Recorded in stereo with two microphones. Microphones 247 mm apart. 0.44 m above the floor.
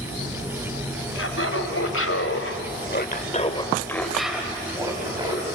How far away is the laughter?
About 3.5 m.